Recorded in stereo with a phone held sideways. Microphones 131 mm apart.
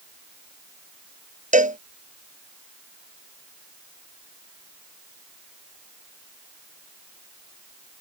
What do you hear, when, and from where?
1.5 s a cowbell: 75° right (ahead or behind)